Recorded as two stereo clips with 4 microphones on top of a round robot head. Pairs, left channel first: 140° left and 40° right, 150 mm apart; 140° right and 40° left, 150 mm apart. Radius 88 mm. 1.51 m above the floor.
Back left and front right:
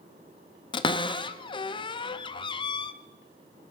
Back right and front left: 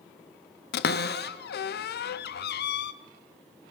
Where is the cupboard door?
160° right, 0.7 m.